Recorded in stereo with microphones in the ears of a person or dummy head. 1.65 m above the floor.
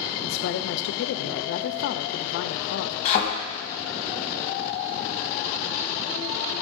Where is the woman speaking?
65° left (ahead or behind), 0.5 m.